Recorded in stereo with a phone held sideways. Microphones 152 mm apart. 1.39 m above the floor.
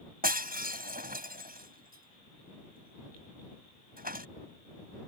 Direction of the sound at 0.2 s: 75° right (ahead or behind).